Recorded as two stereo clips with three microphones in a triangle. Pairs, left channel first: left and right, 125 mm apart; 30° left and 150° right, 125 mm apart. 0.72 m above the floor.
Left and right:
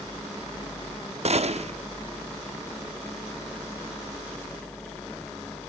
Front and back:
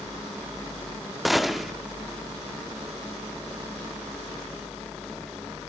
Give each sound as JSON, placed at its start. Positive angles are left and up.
{"t": 1.2, "sound": "a gunshot", "azimuth_deg": -60, "distance_m": 0.7}